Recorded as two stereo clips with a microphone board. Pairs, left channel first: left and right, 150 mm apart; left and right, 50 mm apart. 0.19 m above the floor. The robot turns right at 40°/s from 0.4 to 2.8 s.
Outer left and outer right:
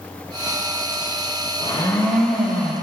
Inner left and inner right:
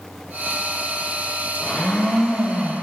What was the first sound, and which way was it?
A blender, 150° left.